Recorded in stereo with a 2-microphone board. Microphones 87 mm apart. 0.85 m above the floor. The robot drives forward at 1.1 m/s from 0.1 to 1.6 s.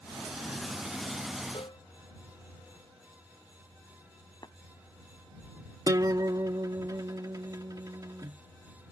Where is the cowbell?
65° left (ahead or behind).